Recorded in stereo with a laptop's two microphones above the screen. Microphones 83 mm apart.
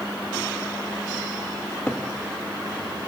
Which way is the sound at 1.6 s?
25° left (ahead or behind).